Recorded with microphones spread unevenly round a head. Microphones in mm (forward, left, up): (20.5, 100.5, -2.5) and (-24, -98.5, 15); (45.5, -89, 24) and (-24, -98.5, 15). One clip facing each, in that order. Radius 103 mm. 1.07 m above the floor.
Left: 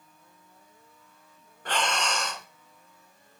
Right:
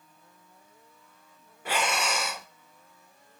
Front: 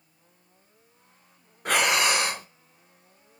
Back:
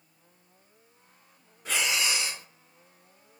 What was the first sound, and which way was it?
Breathing, 20° right.